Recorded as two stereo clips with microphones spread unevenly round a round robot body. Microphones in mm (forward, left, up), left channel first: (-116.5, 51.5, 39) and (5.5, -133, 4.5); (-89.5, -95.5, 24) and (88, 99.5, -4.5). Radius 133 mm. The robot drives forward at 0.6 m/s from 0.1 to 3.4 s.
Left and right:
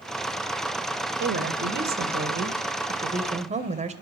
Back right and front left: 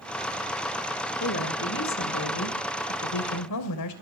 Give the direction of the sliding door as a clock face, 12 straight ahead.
No sliding door in this recording.